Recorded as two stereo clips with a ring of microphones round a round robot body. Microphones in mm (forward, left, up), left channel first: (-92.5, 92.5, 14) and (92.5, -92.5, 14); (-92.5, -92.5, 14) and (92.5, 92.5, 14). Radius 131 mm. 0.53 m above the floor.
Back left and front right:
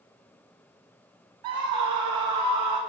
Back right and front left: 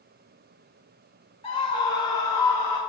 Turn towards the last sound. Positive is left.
turn(degrees=-55)